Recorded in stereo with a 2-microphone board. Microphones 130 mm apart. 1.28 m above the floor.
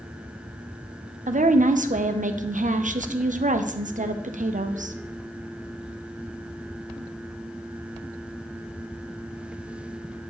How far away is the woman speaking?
About 0.6 m.